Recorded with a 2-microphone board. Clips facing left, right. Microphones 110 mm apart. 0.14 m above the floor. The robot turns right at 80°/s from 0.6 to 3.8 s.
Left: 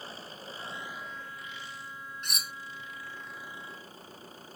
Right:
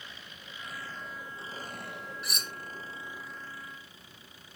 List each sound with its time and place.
0.0 s an engine running: 145° left; by 4.6 s 40° left
2.2 s cutlery clinking: 5° right (ahead or behind); by 2.5 s 10° left (ahead or behind)